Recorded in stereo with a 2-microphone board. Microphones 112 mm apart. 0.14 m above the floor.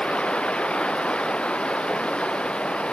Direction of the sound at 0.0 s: 10° left (ahead or behind).